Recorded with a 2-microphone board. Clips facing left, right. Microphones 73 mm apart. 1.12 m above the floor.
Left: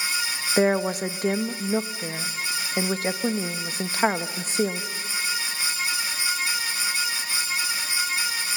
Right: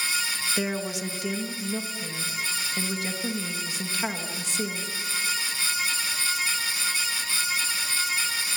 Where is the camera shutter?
I don't hear a camera shutter.